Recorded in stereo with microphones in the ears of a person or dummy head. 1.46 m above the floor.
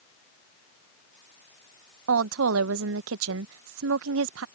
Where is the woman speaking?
80° right.